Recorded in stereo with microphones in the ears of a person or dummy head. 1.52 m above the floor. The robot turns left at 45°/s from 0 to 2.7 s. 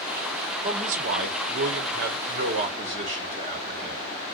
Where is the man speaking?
40° right, 1.0 m; by 4.0 s 135° right, 1.0 m.